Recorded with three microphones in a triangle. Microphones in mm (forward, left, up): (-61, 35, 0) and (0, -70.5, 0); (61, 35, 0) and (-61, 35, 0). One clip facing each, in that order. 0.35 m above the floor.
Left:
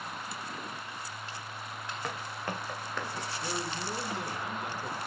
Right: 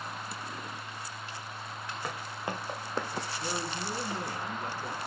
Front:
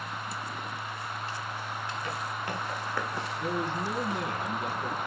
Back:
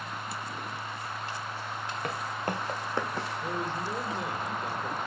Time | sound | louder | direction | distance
2.0 | footsteps | even, back 5 dB | 140° right | 2.5 m
3.4 | a man speaking | left 1 dB, front 5 dB | 5° right | 3 m